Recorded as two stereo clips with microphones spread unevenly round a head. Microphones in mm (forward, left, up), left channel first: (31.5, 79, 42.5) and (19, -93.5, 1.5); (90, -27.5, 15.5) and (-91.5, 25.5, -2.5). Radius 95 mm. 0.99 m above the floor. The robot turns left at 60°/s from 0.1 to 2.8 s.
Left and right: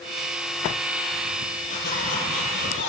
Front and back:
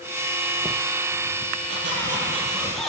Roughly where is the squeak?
Behind left.